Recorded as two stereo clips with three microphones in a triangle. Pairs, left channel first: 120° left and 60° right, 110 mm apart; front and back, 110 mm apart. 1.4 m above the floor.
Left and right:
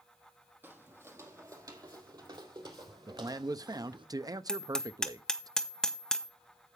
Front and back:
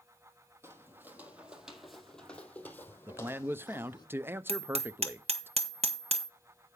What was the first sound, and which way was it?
Footsteps, 125° right.